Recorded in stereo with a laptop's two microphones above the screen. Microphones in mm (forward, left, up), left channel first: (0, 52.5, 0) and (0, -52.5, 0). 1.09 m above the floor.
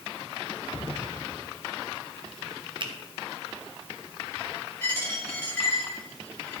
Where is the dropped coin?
15° left (ahead or behind), 2.5 m.